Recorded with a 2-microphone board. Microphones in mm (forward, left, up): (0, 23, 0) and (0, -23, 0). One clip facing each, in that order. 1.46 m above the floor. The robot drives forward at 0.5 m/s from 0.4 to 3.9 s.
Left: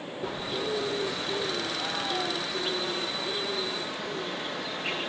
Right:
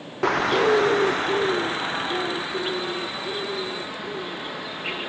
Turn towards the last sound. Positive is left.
turn(degrees=-15)  # may be behind; listen again after turning